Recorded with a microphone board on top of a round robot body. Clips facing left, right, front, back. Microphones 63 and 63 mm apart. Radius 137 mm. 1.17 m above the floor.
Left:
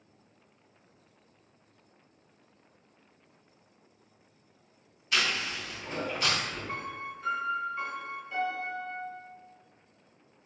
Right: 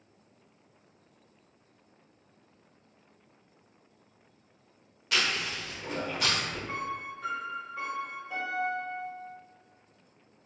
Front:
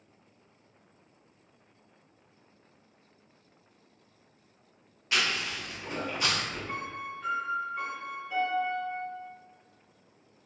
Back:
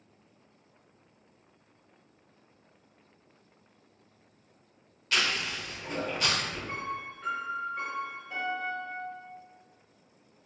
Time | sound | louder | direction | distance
5.1 | chewing | even, even | 70° right | 1.3 m
6.7 | a piano | right 2 dB, back 1 dB | 90° right | 1.0 m